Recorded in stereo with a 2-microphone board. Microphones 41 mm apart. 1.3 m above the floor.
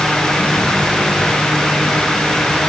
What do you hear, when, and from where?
Only background noise.